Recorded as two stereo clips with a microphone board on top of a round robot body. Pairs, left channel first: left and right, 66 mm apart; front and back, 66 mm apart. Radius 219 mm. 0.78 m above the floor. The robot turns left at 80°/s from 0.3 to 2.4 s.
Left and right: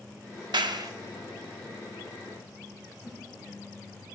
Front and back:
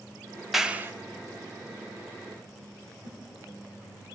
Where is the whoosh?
Straight behind, 6.5 m.